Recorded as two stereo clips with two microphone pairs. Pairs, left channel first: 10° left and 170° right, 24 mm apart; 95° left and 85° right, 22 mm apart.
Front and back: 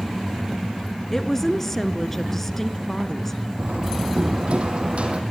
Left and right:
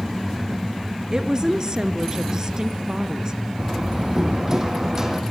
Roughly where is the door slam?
Behind right.